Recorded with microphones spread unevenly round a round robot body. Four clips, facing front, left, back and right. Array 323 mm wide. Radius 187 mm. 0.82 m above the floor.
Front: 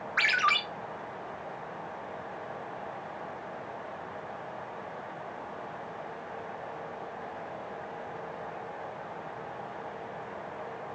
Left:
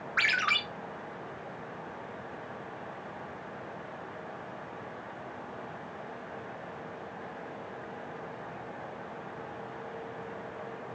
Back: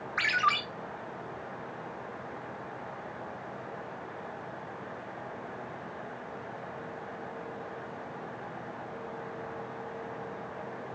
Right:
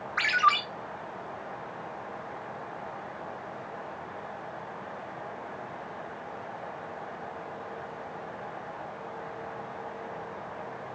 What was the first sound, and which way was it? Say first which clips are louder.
A ringtone: right 7 dB, even; 10° left.